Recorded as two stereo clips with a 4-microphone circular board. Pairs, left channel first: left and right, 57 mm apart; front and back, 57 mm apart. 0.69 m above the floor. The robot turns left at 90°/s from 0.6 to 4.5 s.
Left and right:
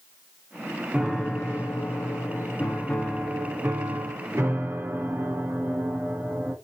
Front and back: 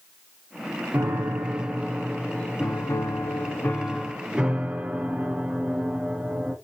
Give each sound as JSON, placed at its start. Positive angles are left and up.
{"t": 0.9, "sound": "a piano", "azimuth_deg": -160, "distance_m": 0.7}